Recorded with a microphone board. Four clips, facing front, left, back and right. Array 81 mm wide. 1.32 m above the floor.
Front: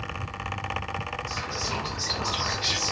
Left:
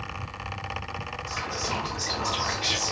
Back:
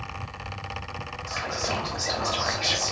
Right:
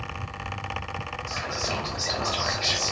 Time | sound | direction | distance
1.3 | whispering | 145° right | 1.9 m